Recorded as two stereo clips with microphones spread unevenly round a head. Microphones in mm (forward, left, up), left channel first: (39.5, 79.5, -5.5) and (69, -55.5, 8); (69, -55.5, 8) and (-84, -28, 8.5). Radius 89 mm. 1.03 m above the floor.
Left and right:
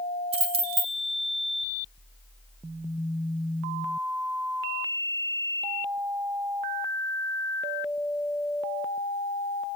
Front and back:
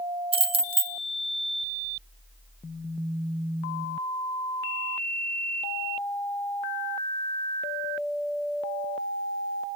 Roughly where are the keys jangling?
Behind right.